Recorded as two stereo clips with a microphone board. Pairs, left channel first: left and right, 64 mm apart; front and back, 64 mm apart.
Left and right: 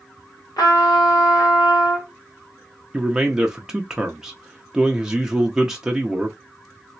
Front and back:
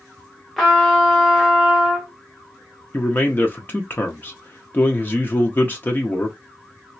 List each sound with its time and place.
0.6 s a trumpet: 85° left, 1.6 m
2.9 s a man speaking: 20° right, 0.7 m